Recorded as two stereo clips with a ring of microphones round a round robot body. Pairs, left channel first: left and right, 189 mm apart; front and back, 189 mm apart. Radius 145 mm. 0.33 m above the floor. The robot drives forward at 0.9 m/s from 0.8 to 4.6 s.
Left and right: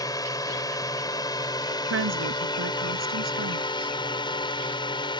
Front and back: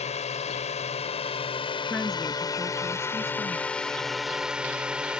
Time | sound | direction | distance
0.0 | a drone | 30° left | ?
1.9 | a woman speaking | 85° right | ?